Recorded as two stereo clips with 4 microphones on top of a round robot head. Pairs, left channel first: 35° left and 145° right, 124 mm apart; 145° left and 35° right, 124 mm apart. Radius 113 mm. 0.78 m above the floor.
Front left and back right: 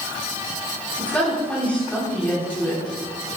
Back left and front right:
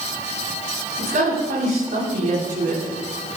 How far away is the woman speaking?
About 6.5 m.